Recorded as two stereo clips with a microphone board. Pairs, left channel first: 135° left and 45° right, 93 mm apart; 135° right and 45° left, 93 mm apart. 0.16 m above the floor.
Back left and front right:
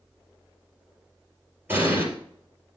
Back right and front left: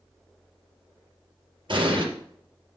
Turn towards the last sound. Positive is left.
turn(degrees=20)